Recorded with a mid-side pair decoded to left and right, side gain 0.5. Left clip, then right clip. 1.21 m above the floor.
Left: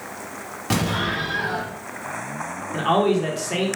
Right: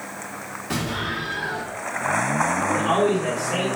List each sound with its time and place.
0.7 s an explosion: 60° left, 1.1 m
2.7 s a man speaking: 45° left, 1.2 m